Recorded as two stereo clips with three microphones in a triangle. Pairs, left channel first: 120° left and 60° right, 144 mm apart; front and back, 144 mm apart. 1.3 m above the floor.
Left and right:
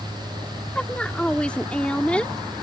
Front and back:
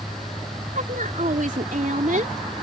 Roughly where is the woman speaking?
Behind.